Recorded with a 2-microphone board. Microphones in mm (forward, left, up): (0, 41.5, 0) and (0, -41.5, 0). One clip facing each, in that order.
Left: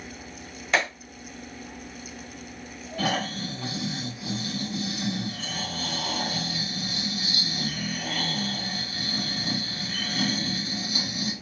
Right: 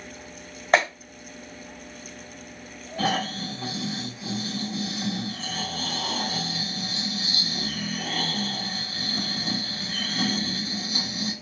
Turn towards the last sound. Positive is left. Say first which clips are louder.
# right 2 dB
turn(degrees=-25)  # may be behind; listen again after turning